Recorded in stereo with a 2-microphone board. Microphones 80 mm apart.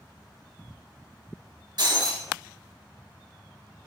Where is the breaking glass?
60° right (ahead or behind), 1.7 m.